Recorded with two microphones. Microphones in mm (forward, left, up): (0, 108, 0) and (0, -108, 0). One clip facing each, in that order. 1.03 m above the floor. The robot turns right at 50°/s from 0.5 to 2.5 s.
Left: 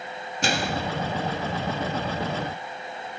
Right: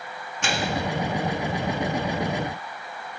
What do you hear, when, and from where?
0.4 s a microwave: 40° left (ahead or behind), 1.9 m; by 0.8 s 25° left (ahead or behind), 1.9 m